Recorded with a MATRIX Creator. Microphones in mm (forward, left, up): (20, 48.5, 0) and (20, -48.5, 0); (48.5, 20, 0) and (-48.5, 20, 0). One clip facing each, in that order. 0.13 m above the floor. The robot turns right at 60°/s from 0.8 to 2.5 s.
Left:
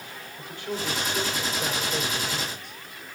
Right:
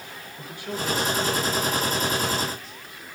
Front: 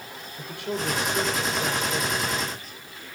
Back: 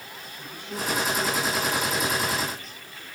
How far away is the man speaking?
About 4 m.